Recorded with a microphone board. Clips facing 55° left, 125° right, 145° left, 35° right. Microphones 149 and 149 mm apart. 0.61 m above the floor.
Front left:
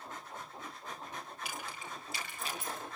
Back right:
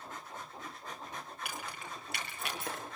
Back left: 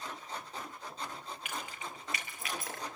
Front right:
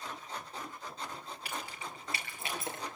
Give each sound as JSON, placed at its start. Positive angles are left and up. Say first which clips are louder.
{"t": 1.4, "sound": "keys jangling", "louder": "back right 1 dB, front right 1 dB", "azimuth_deg": -90, "distance_m": 8.5}